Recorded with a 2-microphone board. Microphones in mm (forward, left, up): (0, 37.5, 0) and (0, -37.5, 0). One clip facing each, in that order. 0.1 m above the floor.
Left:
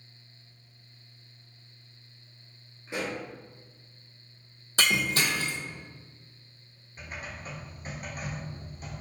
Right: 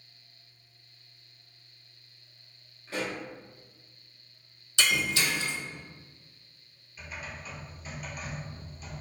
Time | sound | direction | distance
2.9 | a pop | 20° left (ahead or behind) | 1.2 m
4.8 | breaking glass | 45° left (ahead or behind) | 0.6 m
7.0 | typing on a keyboard | 45° left (ahead or behind) | 0.8 m